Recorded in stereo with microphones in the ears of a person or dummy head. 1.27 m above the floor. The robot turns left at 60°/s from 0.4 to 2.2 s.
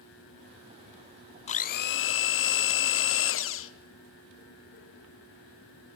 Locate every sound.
1.5 s a blender: 140° left, 0.6 m; by 3.7 s 95° left, 0.6 m